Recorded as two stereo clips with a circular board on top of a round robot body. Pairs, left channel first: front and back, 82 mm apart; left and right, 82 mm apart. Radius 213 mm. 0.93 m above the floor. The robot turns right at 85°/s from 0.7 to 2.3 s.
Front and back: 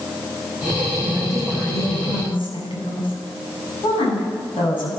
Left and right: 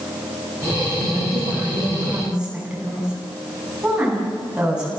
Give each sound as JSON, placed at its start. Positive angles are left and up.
{"t": 1.0, "sound": "a woman speaking", "azimuth_deg": -120, "distance_m": 9.0}